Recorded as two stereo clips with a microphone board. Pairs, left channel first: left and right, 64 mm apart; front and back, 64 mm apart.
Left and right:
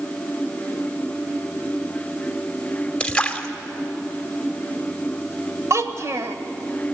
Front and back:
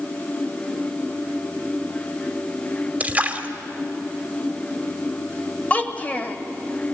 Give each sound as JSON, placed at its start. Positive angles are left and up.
{"t": 3.0, "sound": "a splash", "azimuth_deg": 145, "distance_m": 1.3}
{"t": 5.7, "sound": "a child speaking", "azimuth_deg": -60, "distance_m": 1.3}